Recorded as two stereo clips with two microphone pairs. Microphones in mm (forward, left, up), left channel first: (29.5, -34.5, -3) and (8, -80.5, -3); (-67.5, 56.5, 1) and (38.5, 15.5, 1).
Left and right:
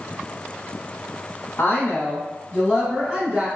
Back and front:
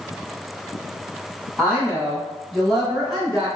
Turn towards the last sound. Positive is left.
turn(degrees=-105)